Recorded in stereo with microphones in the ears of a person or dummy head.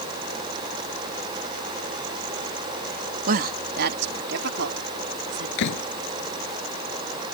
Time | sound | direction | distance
3.3 | a woman speaking | 50° right (ahead or behind) | ?
5.6 | a door slam | 65° left (ahead or behind) | ?